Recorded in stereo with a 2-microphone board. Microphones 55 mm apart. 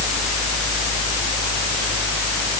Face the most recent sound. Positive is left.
No sound to turn to.